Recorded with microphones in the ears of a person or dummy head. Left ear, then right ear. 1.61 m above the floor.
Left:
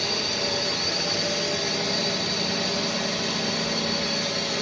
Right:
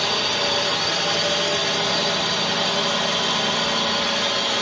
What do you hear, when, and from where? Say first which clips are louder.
0.0 s a drone: right 4 dB; 40° right (ahead or behind)